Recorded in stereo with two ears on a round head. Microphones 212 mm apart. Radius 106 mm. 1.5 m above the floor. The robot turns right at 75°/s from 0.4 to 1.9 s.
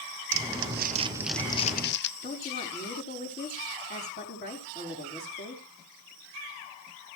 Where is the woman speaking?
40° left (ahead or behind), 4.5 m.